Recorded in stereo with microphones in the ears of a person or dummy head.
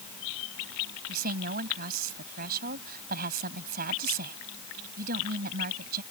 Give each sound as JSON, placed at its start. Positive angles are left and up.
{"t": 1.1, "sound": "a woman speaking", "side_deg": -45}